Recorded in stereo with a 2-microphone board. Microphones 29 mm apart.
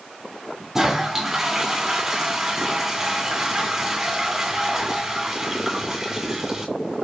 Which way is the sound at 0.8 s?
15° right (ahead or behind).